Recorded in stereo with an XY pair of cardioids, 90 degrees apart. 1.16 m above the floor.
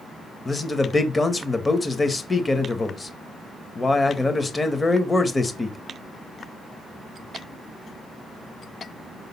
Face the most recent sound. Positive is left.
turn(degrees=25)